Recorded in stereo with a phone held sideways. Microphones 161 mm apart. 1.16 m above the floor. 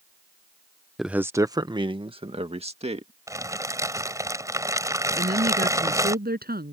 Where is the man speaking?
Centre (ahead or behind); by 3.1 s 40° right (ahead or behind).